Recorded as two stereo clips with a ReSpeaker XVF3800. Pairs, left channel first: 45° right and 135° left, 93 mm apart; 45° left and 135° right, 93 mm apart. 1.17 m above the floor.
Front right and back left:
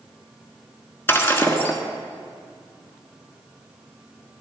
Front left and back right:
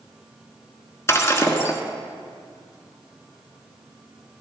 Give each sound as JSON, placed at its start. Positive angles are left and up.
{"t": 1.1, "sound": "breaking glass", "azimuth_deg": 5, "distance_m": 1.3}